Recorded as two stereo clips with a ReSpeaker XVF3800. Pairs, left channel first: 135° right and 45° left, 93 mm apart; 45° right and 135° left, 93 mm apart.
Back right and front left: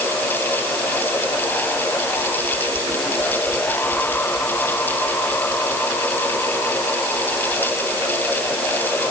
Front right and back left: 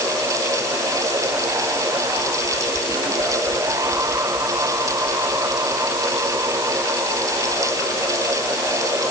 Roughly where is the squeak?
I don't hear a squeak.